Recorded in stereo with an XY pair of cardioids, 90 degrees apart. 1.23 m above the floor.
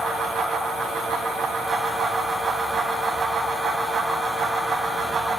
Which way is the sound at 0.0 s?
70° right.